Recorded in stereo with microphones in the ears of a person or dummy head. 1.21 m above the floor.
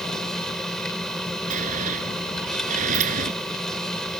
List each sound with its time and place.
0.0 s a machine running: 5° left (ahead or behind)
1.5 s a sliding door: 40° right (ahead or behind)